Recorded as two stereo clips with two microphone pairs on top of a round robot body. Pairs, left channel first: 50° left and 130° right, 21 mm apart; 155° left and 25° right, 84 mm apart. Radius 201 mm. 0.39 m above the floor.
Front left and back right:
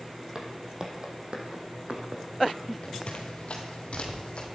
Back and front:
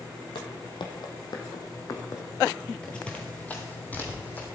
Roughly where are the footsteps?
Behind.